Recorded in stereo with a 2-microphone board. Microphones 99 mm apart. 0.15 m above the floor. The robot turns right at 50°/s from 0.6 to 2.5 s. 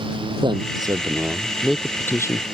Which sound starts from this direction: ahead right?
A man speaking, at 0.4 s.